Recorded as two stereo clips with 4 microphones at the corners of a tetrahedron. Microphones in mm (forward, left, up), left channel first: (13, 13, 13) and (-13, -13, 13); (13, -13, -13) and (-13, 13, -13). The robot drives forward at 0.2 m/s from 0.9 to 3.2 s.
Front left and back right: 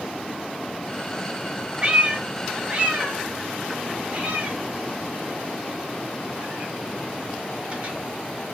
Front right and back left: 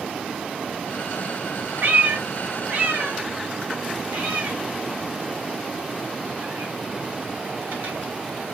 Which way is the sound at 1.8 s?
165° left.